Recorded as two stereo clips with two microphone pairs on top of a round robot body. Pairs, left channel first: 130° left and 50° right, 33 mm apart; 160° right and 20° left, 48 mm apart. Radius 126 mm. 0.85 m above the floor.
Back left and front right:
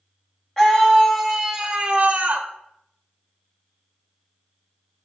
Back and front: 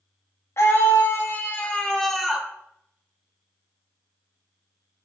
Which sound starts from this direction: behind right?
A scream, at 0.6 s.